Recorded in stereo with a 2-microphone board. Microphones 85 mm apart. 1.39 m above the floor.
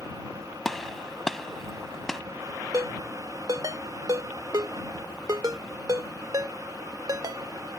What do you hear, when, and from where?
0.7 s a gunshot: 5° left (ahead or behind)
2.7 s a ringtone: 50° right (ahead or behind)